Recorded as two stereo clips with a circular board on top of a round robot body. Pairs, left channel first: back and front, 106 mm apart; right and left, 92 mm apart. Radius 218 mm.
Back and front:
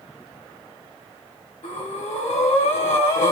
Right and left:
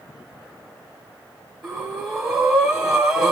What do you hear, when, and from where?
1.6 s breathing: 175° left, 1.2 m